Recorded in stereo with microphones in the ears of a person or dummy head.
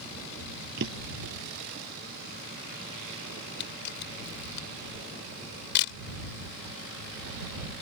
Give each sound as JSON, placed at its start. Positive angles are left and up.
{"t": 0.8, "sound": "a drawer", "side_deg": -65}
{"t": 3.6, "sound": "a camera shutter", "side_deg": 65}